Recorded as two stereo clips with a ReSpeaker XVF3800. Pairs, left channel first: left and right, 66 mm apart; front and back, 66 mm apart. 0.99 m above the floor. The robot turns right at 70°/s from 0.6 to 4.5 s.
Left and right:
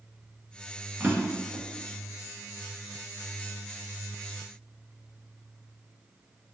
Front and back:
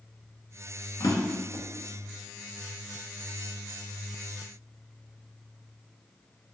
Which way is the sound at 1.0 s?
25° right.